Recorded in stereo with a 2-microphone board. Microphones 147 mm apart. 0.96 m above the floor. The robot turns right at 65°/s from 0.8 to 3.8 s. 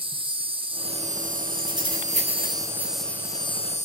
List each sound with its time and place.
0.0 s an insect: 140° right, 0.9 m; by 3.9 s 55° left, 0.9 m
1.6 s keys jangling: 15° right (ahead or behind), 7 m; by 2.9 s 75° right (ahead or behind), 7 m